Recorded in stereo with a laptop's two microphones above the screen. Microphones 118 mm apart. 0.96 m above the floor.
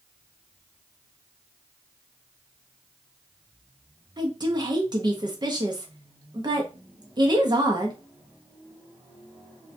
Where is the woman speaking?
40° right (ahead or behind), 0.6 m.